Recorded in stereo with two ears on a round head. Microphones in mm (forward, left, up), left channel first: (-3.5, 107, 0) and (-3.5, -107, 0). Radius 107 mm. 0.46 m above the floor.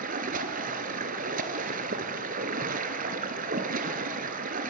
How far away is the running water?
About 1.3 m.